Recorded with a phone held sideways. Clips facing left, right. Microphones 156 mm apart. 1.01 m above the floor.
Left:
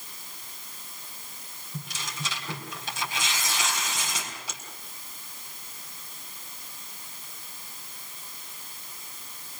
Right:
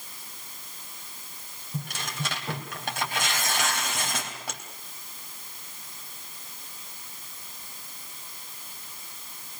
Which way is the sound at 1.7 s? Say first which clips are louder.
Right 4 dB; 60° right (ahead or behind).